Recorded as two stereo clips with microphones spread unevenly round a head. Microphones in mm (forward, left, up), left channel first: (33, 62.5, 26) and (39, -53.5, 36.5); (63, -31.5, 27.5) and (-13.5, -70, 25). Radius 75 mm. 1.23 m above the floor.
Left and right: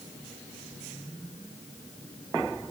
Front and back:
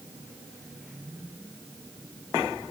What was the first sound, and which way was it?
Only background noise.